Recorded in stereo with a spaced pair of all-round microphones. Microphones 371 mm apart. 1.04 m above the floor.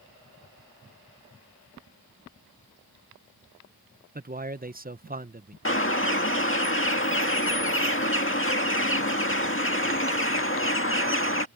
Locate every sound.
4.2 s a man speaking: 25° right (ahead or behind)
5.7 s a bird: 35° left (ahead or behind)